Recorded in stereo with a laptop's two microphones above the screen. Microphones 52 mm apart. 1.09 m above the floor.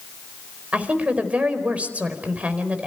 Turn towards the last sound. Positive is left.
turn(degrees=-25)  # may be behind; listen again after turning